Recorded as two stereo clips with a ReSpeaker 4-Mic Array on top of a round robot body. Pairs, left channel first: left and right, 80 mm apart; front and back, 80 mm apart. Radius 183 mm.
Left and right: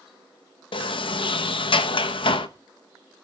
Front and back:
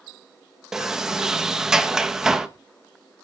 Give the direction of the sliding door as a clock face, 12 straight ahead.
9 o'clock.